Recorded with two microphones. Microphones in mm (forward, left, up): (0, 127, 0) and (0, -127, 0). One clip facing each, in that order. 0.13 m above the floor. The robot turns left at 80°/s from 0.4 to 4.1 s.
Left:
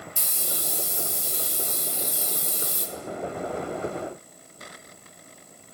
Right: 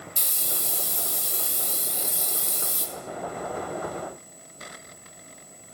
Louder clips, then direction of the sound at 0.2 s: Left 2 dB; 40° right.